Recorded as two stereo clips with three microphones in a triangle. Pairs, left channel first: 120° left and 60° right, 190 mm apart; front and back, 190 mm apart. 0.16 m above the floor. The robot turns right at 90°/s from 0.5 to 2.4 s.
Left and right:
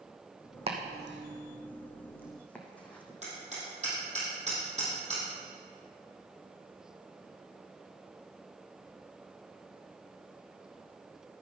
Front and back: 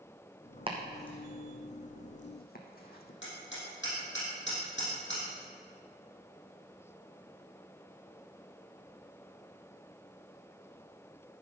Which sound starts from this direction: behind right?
Chopping, at 0.7 s.